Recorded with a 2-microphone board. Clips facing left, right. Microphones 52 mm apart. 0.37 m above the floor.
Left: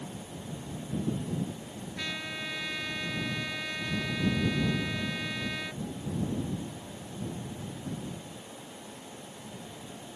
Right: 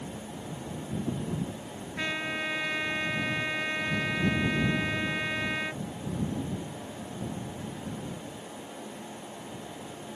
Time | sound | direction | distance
2.0 | a trumpet | 25° right (ahead or behind) | ?